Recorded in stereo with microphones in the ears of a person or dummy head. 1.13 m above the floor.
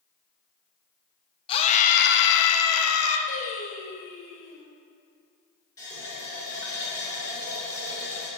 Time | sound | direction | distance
1.5 | a scream | 30° left (ahead or behind) | 1.1 m
3.3 | singing | 75° left (ahead or behind) | 2.5 m
5.8 | a running tap | 20° left (ahead or behind) | 3.5 m